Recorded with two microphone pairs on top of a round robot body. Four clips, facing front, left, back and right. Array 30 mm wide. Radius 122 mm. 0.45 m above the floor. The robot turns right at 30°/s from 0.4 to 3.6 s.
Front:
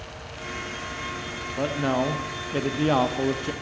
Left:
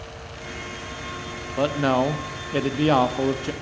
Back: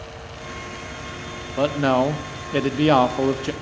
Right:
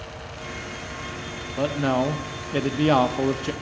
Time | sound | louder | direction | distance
1.6 | a man speaking | left 2 dB, back 6 dB | 160° left | 0.8 m